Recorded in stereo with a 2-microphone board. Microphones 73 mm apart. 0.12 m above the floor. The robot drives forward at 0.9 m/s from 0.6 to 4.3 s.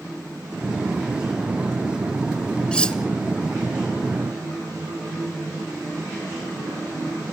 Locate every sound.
2.7 s cutlery clinking: 15° left (ahead or behind), 0.7 m